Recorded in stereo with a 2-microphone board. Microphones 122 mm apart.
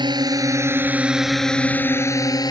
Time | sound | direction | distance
0.0 | a drone | 35° right (ahead or behind) | ?